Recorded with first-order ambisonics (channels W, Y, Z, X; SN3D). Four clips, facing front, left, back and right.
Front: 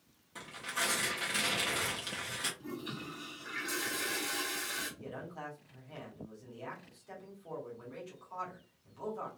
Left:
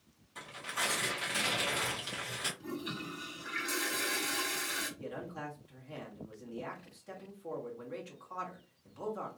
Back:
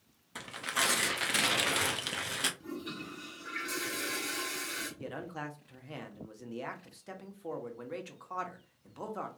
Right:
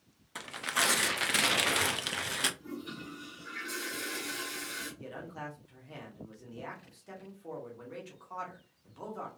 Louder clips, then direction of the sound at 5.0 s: Left 1 dB, back 3 dB; straight behind.